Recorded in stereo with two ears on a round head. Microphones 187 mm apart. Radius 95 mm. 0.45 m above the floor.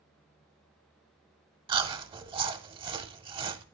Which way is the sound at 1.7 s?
25° right (ahead or behind).